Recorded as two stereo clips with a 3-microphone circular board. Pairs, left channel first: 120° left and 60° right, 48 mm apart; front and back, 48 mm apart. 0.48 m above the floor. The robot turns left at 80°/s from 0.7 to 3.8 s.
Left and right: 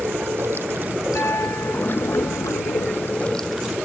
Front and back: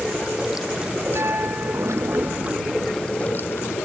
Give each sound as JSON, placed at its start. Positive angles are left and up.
{"t": 0.0, "sound": "running water", "azimuth_deg": -100}
{"t": 1.1, "sound": "a piano", "azimuth_deg": 160}